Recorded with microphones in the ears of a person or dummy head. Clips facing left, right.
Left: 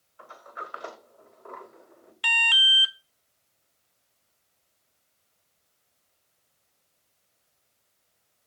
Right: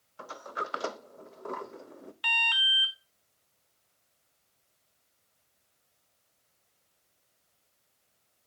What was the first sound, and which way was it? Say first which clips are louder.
A sliding door: right 5 dB; 45° right (ahead or behind).